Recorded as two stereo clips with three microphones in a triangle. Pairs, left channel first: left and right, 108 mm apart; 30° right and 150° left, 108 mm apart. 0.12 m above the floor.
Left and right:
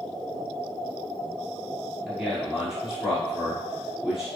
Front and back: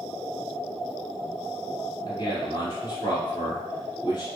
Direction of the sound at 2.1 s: 10° right.